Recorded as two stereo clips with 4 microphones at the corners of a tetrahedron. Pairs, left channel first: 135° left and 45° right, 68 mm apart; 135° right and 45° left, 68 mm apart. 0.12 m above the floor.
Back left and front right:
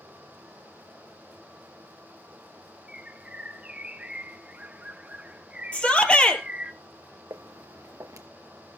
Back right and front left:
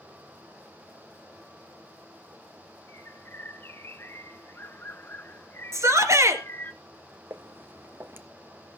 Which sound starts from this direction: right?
A bird, at 2.9 s.